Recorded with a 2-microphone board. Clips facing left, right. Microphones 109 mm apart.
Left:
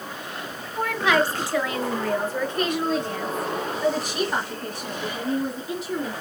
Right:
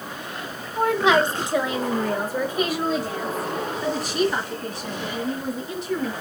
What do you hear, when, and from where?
0.8 s a woman speaking: 25° right (ahead or behind), 1.3 m; by 6.1 s 10° left (ahead or behind), 3 m